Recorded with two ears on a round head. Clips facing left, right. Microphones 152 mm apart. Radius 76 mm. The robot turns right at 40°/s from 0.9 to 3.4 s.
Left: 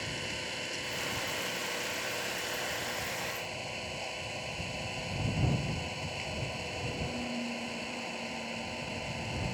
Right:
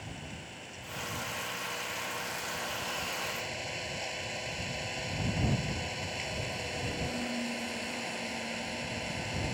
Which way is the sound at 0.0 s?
85° left.